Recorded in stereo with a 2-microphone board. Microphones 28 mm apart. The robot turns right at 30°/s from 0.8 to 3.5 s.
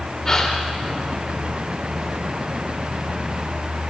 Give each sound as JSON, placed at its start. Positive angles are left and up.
{"t": 0.2, "sound": "a gasp", "side_deg": 20, "distance_m": 4.5}